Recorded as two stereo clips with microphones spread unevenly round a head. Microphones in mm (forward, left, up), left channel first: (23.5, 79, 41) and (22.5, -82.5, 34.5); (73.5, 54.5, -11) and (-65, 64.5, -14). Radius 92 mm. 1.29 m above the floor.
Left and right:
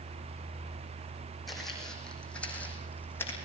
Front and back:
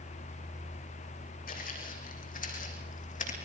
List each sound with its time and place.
1.5 s footsteps: straight ahead, 5 m; by 3.4 s 15° left, 4.5 m